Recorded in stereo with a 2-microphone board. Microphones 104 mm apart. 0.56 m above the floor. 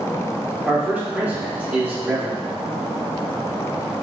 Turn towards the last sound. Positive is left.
turn(degrees=-15)  # may be behind; listen again after turning